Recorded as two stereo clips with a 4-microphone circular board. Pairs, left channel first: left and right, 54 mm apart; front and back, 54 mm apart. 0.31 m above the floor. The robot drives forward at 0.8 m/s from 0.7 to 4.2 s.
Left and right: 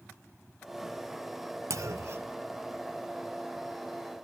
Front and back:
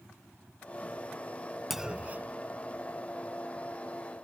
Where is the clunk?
90° right; by 2.4 s 135° right.